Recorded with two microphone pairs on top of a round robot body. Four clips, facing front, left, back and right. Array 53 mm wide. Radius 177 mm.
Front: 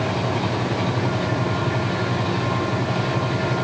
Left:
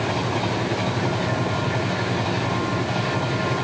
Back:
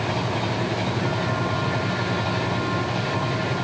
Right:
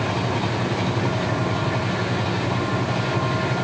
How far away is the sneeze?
I don't hear a sneeze.